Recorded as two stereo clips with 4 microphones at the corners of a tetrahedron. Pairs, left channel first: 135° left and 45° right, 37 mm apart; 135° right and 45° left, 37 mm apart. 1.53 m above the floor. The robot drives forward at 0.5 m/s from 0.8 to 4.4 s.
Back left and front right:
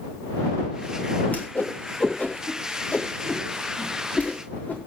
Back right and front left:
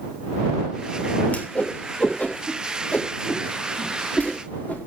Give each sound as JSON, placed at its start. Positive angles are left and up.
{"t": 1.3, "sound": "a whoosh", "azimuth_deg": 180, "distance_m": 3.0}